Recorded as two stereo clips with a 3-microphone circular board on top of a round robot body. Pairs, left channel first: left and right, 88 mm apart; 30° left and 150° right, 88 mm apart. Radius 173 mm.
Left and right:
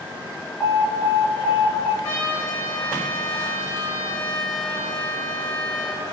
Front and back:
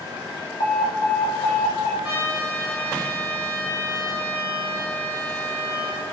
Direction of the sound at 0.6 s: Straight ahead.